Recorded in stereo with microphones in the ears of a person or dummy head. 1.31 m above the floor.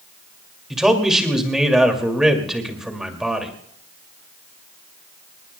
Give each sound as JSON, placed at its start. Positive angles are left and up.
{"t": 0.7, "sound": "a man speaking", "side_deg": -5, "distance_m": 2.5}